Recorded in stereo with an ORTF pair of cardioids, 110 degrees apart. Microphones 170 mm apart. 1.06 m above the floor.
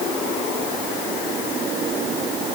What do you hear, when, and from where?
Only background noise.